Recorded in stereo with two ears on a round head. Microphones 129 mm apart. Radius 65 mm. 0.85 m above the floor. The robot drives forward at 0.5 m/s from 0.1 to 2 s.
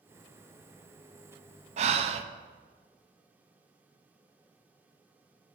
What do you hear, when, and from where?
1.8 s breathing: 45° right (ahead or behind), 0.5 m